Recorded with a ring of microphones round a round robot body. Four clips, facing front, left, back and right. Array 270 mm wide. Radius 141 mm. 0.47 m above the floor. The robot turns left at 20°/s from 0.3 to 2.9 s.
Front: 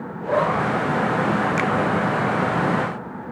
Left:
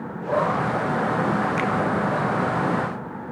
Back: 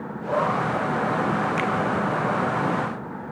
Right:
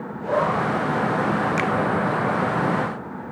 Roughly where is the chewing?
I don't hear chewing.